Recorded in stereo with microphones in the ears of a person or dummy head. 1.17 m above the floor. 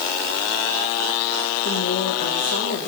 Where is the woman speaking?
45° left (ahead or behind), 5 m.